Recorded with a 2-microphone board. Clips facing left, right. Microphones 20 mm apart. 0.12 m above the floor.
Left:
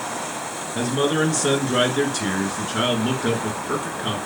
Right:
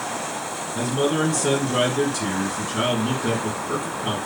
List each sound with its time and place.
0.8 s a man speaking: 20° left (ahead or behind), 1.6 m